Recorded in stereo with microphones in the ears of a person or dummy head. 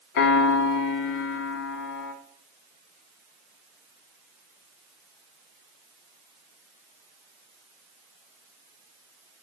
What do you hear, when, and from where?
0.2 s a piano: 60° left (ahead or behind), 0.9 m